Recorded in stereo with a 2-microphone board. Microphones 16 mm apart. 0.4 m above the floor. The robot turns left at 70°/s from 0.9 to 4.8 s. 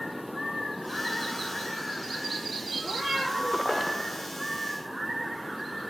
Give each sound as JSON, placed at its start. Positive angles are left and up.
{"t": 2.8, "sound": "a cat meowing", "azimuth_deg": -60, "distance_m": 6.0}